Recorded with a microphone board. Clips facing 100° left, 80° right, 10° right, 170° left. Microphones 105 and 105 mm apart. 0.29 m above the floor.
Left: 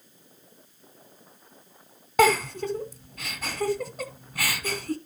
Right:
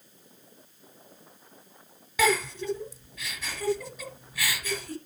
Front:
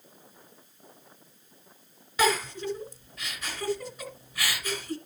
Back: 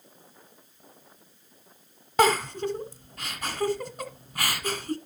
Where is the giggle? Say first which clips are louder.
Left 5 dB, back 4 dB; 135° left, 1.3 m.